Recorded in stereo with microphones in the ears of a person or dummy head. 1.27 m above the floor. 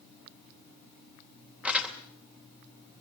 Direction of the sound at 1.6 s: 5° right (ahead or behind).